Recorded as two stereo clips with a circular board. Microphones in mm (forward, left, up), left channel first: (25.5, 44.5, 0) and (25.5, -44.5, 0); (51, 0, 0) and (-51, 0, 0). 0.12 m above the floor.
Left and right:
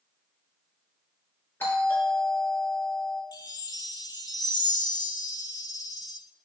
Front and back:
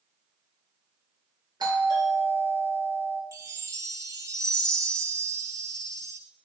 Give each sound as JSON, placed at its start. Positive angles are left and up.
{"t": 1.6, "sound": "a doorbell", "azimuth_deg": 145, "distance_m": 3.0}
{"t": 3.3, "sound": "a chime", "azimuth_deg": 125, "distance_m": 0.5}